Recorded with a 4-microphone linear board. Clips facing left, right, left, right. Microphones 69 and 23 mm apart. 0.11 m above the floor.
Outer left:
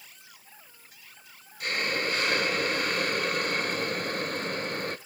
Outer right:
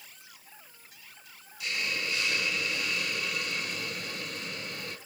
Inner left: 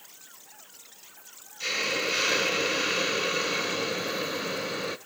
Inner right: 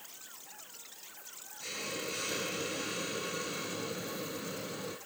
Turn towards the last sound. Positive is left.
turn(degrees=50)  # may be behind; listen again after turning